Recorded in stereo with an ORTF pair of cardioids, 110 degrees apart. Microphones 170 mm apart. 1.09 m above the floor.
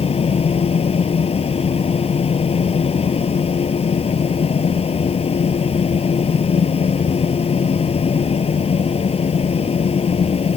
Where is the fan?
35° left.